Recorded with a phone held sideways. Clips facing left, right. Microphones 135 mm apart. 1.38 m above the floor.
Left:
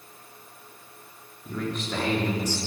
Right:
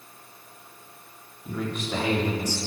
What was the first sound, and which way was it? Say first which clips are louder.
A man speaking: right 1 dB; 5° right (ahead or behind).